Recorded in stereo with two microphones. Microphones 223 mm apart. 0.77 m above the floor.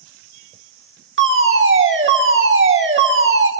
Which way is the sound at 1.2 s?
65° right (ahead or behind).